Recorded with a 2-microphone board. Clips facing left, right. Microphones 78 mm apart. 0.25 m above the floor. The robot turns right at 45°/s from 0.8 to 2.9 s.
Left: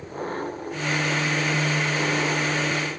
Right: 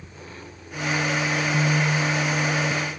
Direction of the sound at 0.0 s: 50° left.